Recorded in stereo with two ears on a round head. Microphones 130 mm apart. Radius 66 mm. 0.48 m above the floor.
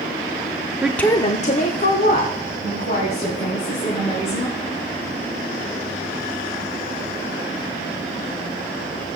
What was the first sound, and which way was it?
A woman speaking, 10° right (ahead or behind).